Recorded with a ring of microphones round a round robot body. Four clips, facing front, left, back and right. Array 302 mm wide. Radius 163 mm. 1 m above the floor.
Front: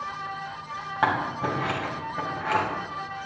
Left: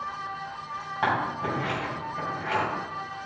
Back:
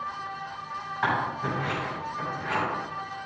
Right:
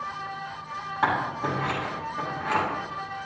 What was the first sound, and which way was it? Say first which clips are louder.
Scissors: right 1 dB, front 2 dB; 5° left.